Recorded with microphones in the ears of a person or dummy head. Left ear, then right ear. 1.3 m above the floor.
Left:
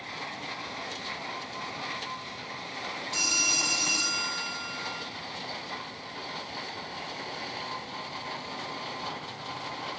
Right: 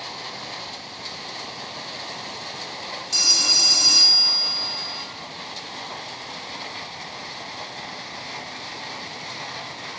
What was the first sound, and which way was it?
A phone ringing, 70° right (ahead or behind).